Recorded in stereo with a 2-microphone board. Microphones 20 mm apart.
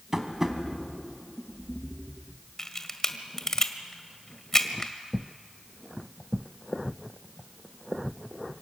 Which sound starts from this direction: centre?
Tapping, at 0.1 s.